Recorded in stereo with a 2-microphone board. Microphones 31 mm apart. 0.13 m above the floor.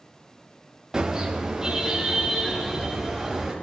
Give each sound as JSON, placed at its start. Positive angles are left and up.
{"t": 0.9, "sound": "a car horn", "side_deg": -20, "distance_m": 7.0}